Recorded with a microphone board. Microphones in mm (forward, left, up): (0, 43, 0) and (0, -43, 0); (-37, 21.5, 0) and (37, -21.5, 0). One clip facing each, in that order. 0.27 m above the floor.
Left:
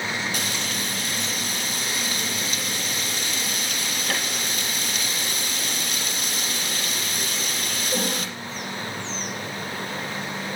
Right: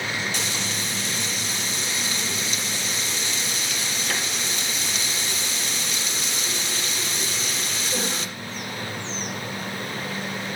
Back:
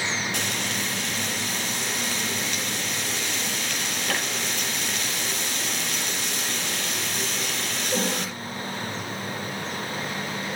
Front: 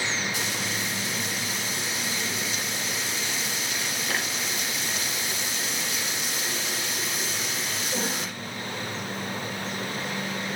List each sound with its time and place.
0.3 s frying: 130° left, 4.5 m